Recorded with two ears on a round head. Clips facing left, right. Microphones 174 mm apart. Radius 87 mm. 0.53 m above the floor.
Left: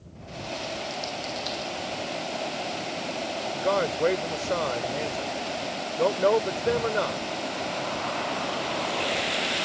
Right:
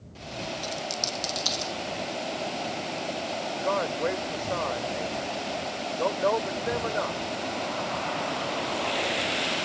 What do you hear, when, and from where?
0.6 s a dropped coin: 65° right (ahead or behind)
3.5 s a man speaking: 45° left (ahead or behind)